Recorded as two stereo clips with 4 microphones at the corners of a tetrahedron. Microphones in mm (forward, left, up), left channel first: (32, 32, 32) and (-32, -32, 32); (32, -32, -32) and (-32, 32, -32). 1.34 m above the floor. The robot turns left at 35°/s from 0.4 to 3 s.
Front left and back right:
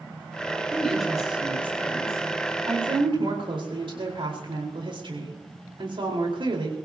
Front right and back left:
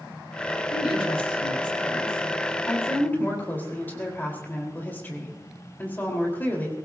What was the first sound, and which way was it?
A woman speaking, 35° right.